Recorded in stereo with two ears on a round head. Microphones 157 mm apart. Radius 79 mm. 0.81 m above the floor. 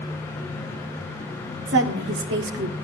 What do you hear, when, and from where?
1.7 s a woman speaking: 75° right (ahead or behind), 1.7 m; by 2.7 s 70° right (ahead or behind), 1.2 m